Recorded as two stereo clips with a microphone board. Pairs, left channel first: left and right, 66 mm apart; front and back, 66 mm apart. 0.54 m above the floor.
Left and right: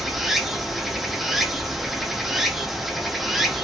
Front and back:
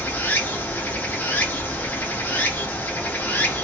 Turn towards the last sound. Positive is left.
turn(degrees=-10)